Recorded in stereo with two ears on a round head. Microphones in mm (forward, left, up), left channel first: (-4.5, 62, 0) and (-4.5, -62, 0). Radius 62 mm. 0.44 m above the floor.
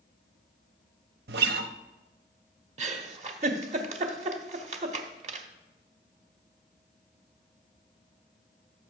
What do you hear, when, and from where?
1.3 s a guitar: 80° right, 0.8 m
2.8 s a giggle: 50° right (ahead or behind), 1.1 m